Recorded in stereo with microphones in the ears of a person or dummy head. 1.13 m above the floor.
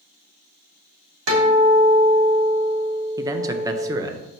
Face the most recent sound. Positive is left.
turn(degrees=-20)  # may be behind; listen again after turning